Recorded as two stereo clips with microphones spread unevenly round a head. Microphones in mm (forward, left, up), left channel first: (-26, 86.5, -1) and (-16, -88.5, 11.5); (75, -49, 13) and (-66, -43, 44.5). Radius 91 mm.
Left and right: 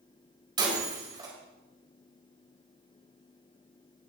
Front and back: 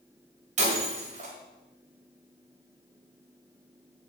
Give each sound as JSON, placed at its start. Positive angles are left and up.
{"t": 0.6, "sound": "breaking glass", "azimuth_deg": -150, "distance_m": 4.5}